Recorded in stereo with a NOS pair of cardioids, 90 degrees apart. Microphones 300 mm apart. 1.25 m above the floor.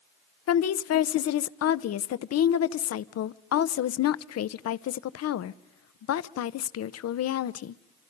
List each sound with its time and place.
0.5 s a woman speaking: 55° left, 0.8 m